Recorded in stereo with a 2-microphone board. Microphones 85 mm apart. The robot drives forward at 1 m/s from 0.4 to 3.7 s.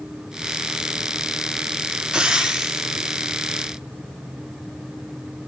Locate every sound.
2.1 s frying: 10° right (ahead or behind), 1.0 m; by 3.6 s 5° right (ahead or behind), 2.5 m